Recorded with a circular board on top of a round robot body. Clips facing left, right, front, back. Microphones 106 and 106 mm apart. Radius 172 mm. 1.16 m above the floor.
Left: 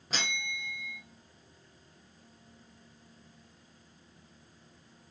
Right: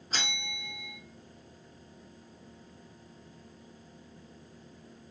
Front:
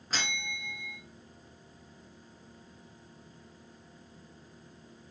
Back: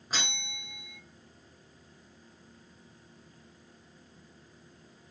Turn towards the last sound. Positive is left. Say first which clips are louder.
# left 1 dB, front 2 dB
turn(degrees=105)